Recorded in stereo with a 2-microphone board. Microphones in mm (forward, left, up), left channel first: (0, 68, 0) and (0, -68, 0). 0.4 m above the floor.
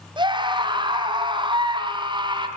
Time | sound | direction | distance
0.2 | a scream | 35° right (ahead or behind) | 4 m